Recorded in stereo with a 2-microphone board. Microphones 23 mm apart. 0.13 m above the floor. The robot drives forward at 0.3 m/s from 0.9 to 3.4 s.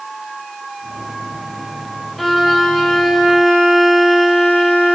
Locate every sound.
2.2 s a violin: 10° left (ahead or behind), 3.5 m